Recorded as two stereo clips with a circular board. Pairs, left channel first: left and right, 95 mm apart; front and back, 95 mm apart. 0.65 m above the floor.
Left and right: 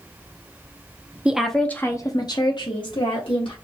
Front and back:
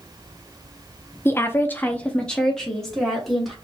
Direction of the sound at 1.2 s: 25° right.